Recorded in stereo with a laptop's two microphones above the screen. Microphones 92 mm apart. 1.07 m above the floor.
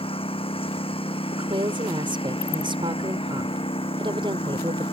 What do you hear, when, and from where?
0.0 s a lawn mower: 85° left
1.3 s a woman speaking: 65° right (ahead or behind)